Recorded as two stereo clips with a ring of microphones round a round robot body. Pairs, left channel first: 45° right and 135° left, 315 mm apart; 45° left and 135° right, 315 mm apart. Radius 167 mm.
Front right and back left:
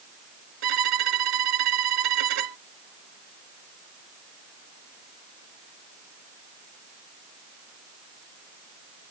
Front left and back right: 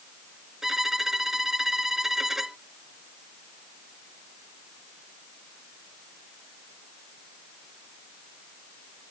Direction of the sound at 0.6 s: 135° left.